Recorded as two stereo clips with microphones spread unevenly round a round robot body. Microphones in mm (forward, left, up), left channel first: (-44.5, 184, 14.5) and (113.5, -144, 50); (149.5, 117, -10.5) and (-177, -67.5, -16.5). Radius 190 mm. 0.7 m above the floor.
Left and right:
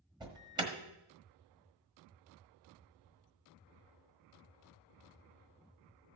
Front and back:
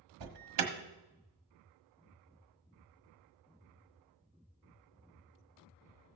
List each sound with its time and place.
0.2 s an alarm: 145° right, 1.3 m